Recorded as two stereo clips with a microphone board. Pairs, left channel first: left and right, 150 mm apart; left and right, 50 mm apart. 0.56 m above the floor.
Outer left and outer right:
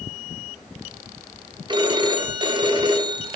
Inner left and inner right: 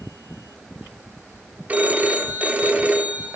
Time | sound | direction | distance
1.7 | a phone ringing | 30° right (ahead or behind) | 1.0 m